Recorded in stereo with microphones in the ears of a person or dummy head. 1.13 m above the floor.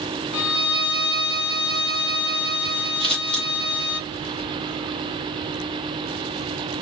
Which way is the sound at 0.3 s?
40° left (ahead or behind).